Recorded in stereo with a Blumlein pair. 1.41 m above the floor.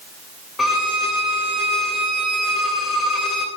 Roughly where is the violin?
Ahead.